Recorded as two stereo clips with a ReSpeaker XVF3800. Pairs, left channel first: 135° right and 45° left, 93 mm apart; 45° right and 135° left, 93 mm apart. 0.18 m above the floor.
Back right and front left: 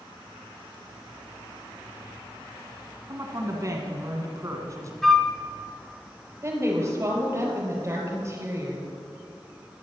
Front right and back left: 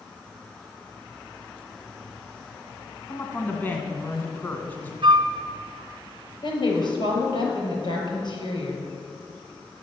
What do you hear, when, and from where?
3.1 s a woman speaking: 15° left, 2.0 m
5.0 s a flute: 140° left, 1.0 m
6.4 s a woman speaking: 15° right, 4.5 m